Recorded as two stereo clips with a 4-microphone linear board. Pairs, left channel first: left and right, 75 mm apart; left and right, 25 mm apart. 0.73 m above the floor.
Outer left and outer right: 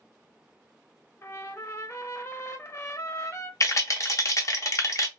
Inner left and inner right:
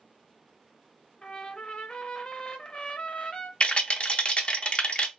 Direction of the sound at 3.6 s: 40° left (ahead or behind).